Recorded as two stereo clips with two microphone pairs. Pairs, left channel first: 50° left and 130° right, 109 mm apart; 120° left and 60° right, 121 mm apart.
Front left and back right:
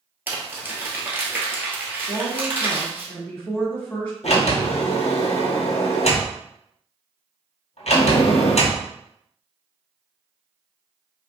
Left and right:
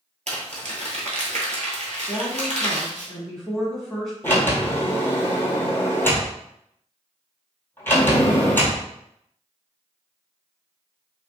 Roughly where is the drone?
No drone in this recording.